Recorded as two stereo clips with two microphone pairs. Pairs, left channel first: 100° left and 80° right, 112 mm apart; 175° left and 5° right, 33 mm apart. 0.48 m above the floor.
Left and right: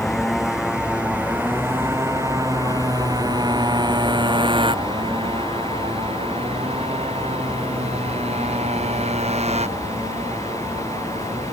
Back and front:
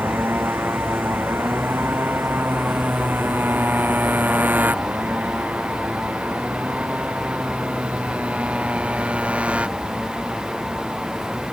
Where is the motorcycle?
10° left; by 11.5 s 60° right.